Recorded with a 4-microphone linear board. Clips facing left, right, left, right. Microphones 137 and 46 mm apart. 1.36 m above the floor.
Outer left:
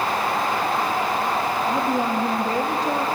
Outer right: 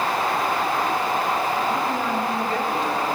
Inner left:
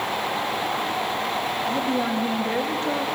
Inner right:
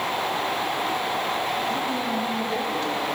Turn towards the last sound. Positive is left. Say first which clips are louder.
# outer left 2 dB, inner left 2 dB
turn(degrees=40)  # may be behind; listen again after turning